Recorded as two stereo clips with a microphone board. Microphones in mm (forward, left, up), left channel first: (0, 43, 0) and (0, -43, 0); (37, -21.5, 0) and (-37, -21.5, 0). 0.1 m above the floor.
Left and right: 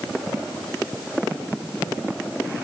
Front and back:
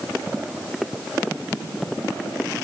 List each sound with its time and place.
Only background noise.